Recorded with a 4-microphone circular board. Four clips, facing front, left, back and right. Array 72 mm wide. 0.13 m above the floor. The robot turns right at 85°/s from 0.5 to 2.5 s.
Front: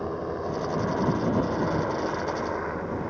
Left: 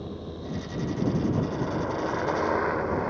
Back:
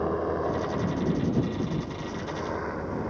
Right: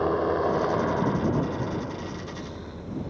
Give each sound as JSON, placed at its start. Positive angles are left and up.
{"t": 0.0, "sound": "a helicopter", "azimuth_deg": -100}